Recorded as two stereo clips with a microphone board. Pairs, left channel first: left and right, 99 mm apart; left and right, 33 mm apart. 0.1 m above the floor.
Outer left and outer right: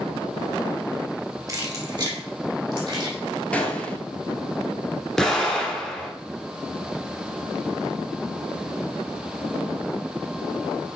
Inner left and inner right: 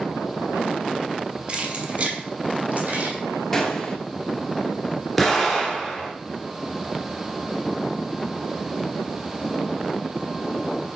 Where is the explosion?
5° left (ahead or behind), 1.8 m.